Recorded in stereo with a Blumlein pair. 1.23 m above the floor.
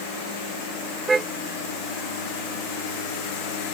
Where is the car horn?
15° right.